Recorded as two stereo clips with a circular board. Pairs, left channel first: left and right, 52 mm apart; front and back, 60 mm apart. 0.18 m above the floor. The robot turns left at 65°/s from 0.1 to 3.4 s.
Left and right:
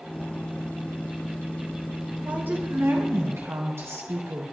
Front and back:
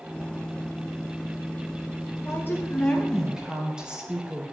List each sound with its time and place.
2.2 s a woman speaking: 30° right, 2.5 m; by 4.4 s 105° right, 2.5 m